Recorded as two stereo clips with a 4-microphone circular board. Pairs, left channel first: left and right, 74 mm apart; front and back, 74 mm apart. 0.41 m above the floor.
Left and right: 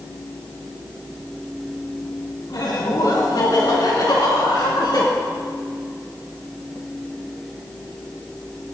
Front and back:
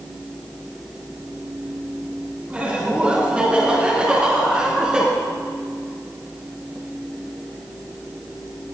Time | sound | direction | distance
2.5 | laughter | 110° left | 3.5 m